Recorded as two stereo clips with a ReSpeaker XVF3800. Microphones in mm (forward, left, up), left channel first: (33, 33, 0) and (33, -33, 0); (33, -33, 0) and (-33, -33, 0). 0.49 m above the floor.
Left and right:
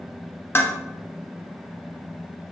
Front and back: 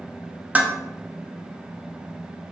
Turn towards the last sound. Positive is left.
turn(degrees=125)